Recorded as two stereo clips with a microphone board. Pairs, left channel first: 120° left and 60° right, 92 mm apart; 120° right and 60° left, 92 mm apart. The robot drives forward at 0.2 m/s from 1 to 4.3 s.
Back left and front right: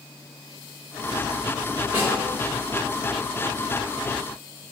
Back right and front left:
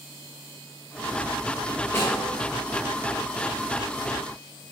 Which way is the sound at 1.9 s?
95° right.